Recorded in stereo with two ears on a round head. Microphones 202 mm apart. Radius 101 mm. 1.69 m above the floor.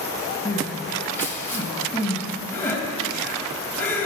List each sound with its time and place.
0.5 s crying: 10° left (ahead or behind), 2.5 m